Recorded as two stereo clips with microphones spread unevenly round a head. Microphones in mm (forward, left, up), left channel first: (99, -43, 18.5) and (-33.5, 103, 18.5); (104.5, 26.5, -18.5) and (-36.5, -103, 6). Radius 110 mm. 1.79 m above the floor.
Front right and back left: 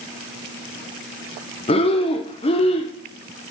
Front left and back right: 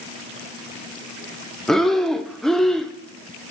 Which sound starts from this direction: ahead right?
Breathing, at 1.7 s.